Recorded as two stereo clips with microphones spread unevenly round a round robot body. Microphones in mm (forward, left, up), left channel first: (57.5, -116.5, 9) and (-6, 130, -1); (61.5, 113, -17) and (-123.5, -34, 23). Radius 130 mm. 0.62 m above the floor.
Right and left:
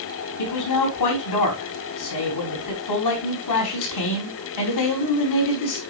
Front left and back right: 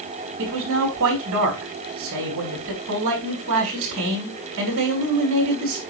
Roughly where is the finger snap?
No finger snap in this recording.